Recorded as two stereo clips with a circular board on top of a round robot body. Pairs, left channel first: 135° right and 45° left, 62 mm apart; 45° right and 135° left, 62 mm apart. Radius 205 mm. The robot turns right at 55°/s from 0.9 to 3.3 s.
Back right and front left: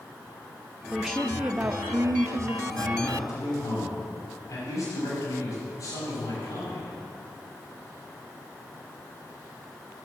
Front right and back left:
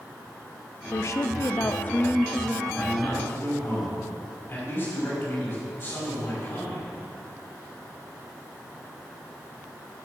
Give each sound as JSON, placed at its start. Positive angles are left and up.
{"t": 0.9, "sound": "a woman speaking", "azimuth_deg": -45, "distance_m": 0.7}
{"t": 2.6, "sound": "a man speaking", "azimuth_deg": -135, "distance_m": 6.0}